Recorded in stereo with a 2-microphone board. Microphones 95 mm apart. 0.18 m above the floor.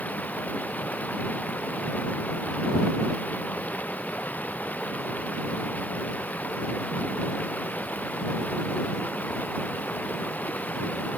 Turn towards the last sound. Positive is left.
turn(degrees=15)  # may be behind; listen again after turning